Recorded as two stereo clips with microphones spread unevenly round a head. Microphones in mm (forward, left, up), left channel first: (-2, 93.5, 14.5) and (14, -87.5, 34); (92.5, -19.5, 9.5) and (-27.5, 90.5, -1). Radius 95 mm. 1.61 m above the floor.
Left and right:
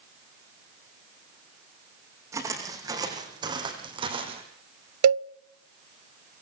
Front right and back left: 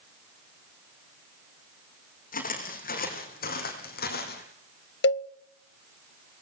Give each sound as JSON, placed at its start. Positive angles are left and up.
{"t": 2.3, "sound": "footsteps", "azimuth_deg": -10, "distance_m": 6.0}
{"t": 5.0, "sound": "a cowbell", "azimuth_deg": -80, "distance_m": 0.6}